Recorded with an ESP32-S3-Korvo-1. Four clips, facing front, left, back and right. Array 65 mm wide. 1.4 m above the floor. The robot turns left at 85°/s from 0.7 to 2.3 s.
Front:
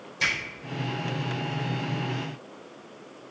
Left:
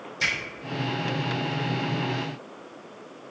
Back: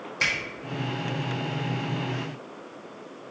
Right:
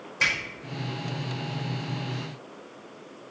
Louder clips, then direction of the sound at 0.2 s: Right 2 dB, even; 135° right.